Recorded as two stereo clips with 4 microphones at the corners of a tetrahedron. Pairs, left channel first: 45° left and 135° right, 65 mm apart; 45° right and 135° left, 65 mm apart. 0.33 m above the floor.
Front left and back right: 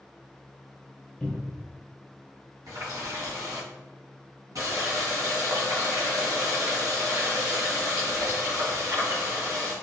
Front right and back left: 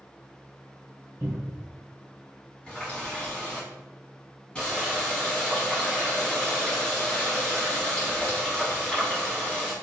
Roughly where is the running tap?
Behind right.